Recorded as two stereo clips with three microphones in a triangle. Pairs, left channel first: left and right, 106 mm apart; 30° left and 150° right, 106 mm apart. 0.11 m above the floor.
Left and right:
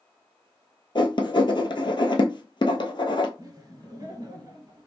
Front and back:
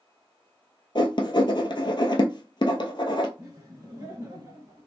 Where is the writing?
60° left, 0.8 m.